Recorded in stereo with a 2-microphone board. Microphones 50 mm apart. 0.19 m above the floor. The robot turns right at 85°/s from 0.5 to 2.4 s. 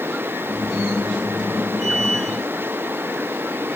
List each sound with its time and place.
Only background noise.